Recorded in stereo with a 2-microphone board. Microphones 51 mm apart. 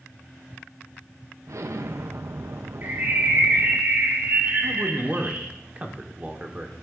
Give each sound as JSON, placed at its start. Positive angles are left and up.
{"t": 1.5, "sound": "an explosion", "side_deg": -70, "distance_m": 0.5}
{"t": 2.8, "sound": "a bird", "side_deg": -45, "distance_m": 1.4}
{"t": 4.6, "sound": "a man speaking", "side_deg": -30, "distance_m": 1.1}